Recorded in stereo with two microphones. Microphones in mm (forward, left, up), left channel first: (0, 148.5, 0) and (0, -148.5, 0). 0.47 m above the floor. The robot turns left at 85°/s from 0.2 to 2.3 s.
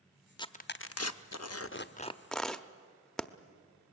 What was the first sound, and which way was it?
Tearing paper, 15° left (ahead or behind).